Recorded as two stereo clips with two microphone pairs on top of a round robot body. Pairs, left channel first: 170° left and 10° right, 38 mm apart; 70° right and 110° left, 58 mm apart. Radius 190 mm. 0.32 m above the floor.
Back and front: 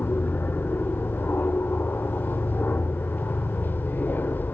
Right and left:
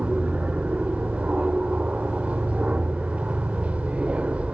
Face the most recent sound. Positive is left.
turn(degrees=175)